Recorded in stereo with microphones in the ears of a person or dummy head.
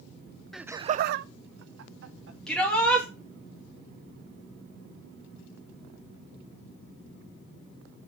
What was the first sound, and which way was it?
Laughter, centre (ahead or behind).